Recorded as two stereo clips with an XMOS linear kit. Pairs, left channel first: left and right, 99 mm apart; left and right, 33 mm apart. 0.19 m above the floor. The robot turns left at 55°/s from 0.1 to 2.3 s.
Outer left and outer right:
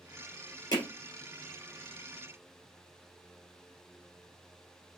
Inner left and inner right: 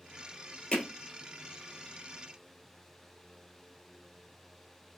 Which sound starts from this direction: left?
Hammering, at 0.7 s.